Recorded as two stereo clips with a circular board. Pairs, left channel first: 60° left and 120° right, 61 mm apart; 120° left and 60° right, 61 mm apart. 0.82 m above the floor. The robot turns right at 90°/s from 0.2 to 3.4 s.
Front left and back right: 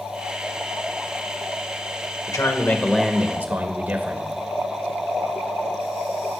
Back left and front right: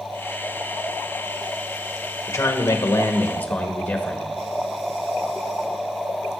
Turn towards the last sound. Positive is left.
turn(degrees=180)